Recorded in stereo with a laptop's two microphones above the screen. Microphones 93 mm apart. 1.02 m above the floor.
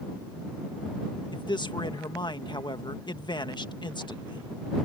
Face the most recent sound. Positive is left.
turn(degrees=55)  # may be behind; listen again after turning